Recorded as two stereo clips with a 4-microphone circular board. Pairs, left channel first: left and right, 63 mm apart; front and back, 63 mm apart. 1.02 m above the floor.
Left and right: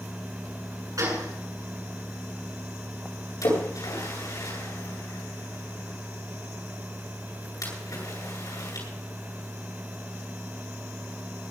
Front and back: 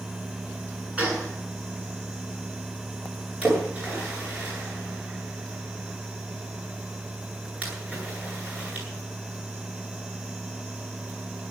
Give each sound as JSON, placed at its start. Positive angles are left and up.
{"t": 1.0, "sound": "a gunshot", "azimuth_deg": -110, "distance_m": 8.5}
{"t": 3.4, "sound": "a splash", "azimuth_deg": 115, "distance_m": 10.0}